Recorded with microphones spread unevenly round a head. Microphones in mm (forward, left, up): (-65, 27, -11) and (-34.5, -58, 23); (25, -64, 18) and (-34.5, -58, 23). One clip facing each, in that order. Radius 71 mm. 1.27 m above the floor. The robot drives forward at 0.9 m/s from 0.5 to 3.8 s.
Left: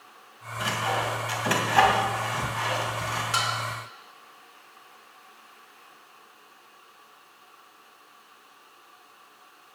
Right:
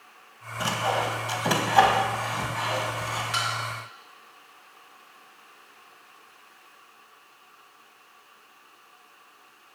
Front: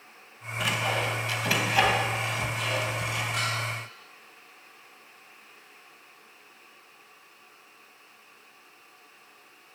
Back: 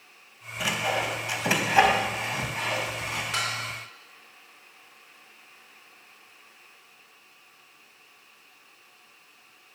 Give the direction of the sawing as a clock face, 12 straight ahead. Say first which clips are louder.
Right 1 dB, back 1 dB; 3 o'clock.